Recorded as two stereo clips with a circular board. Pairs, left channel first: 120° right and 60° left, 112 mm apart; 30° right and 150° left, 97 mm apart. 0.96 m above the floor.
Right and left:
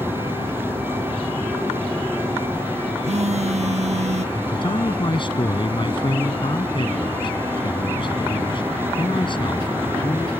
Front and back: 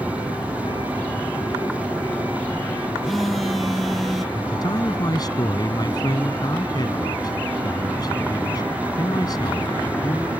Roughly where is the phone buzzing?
Ahead left.